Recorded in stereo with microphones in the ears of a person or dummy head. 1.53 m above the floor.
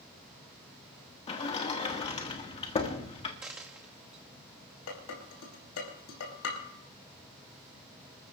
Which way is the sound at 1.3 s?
25° left (ahead or behind).